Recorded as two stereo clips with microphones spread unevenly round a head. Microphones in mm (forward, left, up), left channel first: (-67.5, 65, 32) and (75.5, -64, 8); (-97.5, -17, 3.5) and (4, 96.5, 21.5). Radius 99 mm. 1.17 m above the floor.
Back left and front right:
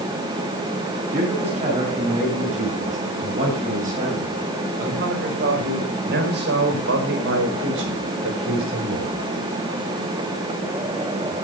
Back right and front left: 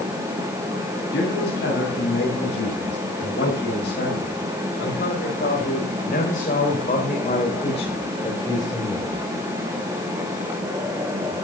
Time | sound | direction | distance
1.1 | a man speaking | 100° right | 8 m